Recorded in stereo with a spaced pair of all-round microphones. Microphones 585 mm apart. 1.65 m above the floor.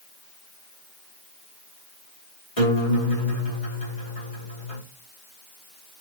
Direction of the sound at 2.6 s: 70° left (ahead or behind).